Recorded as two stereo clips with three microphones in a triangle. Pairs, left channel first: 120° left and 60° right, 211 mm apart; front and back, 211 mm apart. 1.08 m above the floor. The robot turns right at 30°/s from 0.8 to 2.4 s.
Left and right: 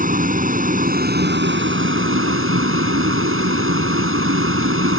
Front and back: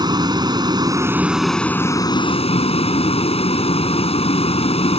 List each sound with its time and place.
0.0 s a vehicle: 110° right; by 5.0 s 60° right